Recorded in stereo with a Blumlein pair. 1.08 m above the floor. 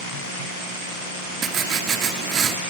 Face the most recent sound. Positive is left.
turn(degrees=-25)